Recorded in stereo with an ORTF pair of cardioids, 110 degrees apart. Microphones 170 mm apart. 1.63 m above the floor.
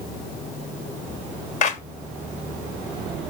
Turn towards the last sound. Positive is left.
turn(degrees=50)